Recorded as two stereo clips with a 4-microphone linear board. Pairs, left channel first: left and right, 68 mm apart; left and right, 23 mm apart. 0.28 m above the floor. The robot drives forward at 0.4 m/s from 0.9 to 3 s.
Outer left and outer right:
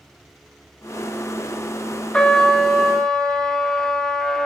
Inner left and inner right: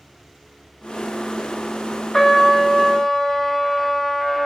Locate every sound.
2.1 s a trumpet: 10° left (ahead or behind), 0.8 m; by 4.5 s 5° left (ahead or behind), 1.1 m